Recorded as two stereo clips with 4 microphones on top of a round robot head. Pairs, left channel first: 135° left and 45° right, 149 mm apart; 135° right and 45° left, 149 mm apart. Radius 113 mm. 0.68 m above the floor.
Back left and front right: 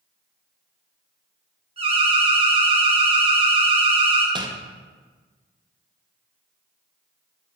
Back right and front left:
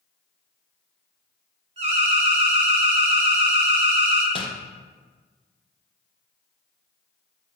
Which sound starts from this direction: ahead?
An alarm, at 1.8 s.